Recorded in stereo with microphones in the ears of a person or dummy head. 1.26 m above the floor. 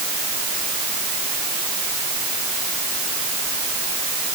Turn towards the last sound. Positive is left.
No sound to turn to.